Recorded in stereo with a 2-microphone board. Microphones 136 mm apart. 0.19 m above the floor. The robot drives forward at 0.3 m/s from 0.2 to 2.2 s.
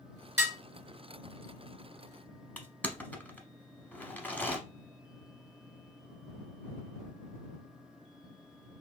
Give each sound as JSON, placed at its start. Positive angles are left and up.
{"t": 0.4, "sound": "dishes clattering", "side_deg": -15, "distance_m": 1.9}
{"t": 2.6, "sound": "crushing", "side_deg": 10, "distance_m": 0.7}